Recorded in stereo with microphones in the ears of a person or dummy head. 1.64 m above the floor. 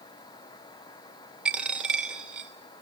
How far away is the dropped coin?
About 2.5 m.